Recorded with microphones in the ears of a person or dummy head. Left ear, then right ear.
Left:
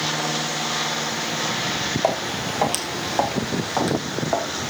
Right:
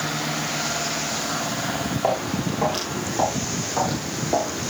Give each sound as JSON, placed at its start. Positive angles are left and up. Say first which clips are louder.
{"t": 2.0, "sound": "footsteps", "louder": "right 2 dB", "side_deg": 30, "distance_m": 2.5}